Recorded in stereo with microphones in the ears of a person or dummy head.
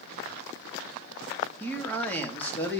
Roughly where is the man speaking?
Centre.